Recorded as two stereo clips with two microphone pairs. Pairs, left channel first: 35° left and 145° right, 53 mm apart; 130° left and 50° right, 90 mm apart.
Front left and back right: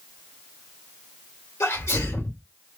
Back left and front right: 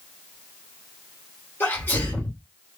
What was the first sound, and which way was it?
A sneeze, 60° left.